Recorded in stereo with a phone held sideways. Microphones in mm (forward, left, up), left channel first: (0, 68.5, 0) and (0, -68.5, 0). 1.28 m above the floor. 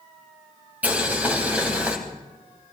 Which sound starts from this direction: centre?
Boiling, at 0.8 s.